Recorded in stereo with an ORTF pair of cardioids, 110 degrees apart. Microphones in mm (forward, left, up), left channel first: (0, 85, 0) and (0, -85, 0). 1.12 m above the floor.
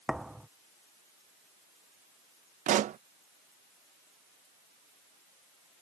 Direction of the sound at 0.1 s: 5° right.